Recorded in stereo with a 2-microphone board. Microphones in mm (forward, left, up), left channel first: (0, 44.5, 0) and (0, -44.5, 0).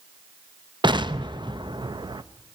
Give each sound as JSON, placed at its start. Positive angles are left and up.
{"t": 0.8, "sound": "an explosion", "side_deg": -60, "distance_m": 0.6}